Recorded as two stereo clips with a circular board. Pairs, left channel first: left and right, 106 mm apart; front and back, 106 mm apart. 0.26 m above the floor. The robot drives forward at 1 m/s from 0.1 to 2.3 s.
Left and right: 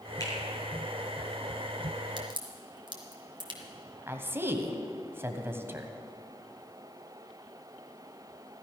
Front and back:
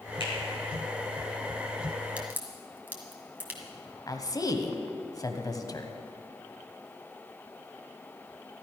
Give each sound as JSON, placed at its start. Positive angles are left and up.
{"t": 0.2, "sound": "a finger snap", "azimuth_deg": 30, "distance_m": 4.0}
{"t": 2.2, "sound": "a crack", "azimuth_deg": -105, "distance_m": 1.9}
{"t": 4.1, "sound": "a woman speaking", "azimuth_deg": -35, "distance_m": 1.2}